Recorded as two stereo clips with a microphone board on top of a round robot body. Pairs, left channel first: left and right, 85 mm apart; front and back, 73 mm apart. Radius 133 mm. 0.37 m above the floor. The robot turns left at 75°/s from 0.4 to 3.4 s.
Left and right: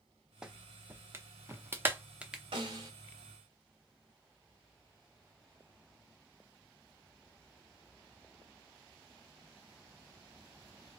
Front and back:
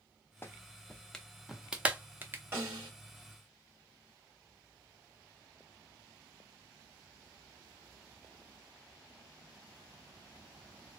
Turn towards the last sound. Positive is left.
turn(degrees=175)